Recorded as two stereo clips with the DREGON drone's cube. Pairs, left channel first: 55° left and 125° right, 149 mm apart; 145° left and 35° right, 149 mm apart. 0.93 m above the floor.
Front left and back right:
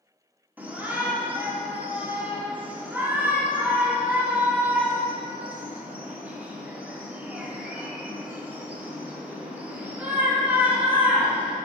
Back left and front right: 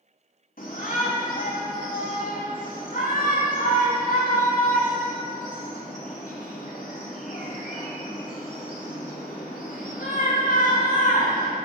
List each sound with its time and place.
0.6 s a shout: 155° left, 2.5 m